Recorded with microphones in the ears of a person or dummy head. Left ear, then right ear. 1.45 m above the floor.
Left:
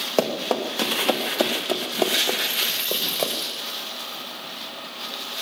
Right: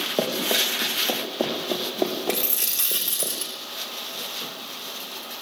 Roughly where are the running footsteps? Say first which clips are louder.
Even; left.